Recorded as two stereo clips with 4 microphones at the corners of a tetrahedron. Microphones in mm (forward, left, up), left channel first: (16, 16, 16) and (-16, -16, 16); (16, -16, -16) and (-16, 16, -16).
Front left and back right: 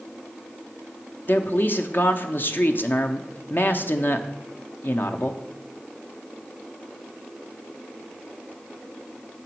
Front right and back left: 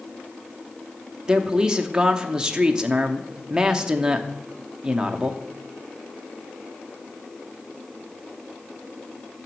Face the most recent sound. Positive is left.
turn(degrees=65)